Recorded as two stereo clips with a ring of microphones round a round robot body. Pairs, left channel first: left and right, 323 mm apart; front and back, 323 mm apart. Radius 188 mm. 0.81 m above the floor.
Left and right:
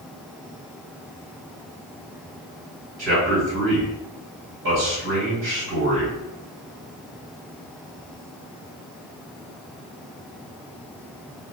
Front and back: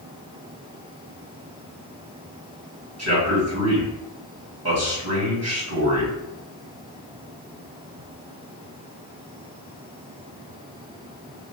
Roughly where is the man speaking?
Behind right.